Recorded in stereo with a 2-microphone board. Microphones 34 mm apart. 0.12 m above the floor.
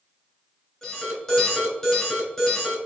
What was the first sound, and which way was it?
An alarm, 10° left (ahead or behind).